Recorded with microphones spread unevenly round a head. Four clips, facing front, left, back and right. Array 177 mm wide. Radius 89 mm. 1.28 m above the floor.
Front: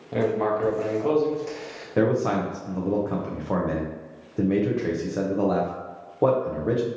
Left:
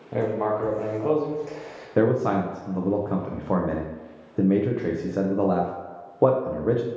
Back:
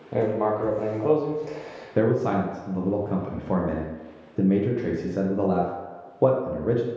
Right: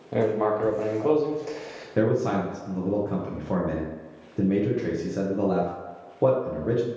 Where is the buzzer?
I don't hear a buzzer.